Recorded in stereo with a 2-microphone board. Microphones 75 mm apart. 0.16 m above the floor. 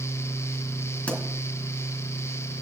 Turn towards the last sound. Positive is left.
turn(degrees=20)  # may be behind; listen again after turning